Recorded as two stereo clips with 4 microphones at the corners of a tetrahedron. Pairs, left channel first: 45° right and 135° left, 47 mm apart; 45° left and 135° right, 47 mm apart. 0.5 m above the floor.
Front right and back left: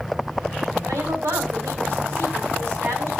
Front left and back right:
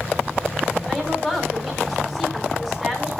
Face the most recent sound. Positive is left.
turn(degrees=135)